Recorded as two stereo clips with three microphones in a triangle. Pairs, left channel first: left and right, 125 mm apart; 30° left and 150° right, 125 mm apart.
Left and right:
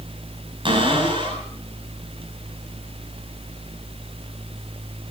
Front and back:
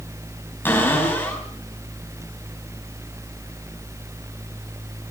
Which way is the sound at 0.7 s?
45° right.